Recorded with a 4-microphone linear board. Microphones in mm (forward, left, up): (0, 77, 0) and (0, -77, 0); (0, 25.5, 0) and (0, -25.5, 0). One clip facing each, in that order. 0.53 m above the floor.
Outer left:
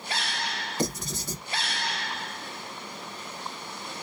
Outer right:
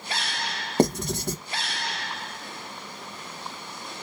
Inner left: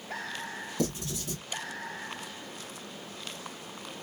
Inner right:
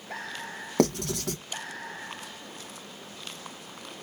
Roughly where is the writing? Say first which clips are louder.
Outer right 9 dB, inner right 8 dB; right.